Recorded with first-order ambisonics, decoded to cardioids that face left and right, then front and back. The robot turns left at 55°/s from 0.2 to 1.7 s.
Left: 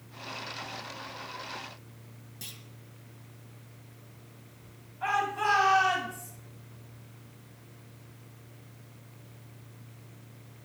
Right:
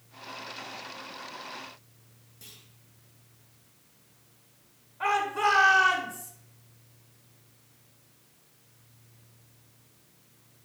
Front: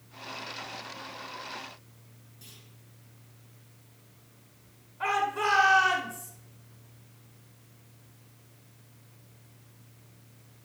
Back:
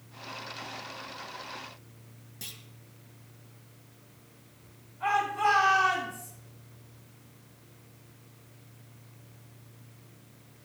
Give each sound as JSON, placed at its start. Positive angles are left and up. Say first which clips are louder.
{"t": 2.4, "sound": "a clunk", "louder": "left 6 dB, back 9 dB", "azimuth_deg": 145, "distance_m": 1.5}
{"t": 5.0, "sound": "a shout", "louder": "right 2 dB, back 1 dB", "azimuth_deg": -50, "distance_m": 4.5}